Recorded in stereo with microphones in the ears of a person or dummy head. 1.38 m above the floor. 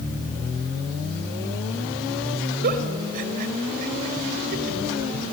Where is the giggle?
60° right (ahead or behind), 2.5 m.